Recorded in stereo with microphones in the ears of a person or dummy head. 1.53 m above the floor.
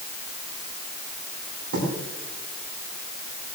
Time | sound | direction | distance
1.7 | writing | 55° right (ahead or behind) | 8.5 m